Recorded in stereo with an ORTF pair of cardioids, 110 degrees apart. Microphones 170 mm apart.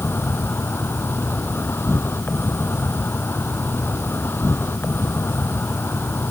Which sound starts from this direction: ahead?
An insect, at 0.0 s.